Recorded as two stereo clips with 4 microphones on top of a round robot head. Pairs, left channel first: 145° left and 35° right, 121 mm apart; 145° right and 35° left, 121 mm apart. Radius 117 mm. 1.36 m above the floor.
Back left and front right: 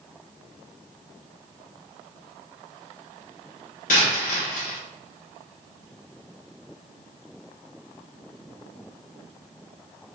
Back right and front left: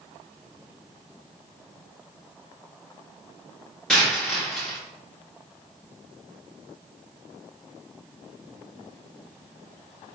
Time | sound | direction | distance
3.9 | a dropped coin | 130° left | 0.9 m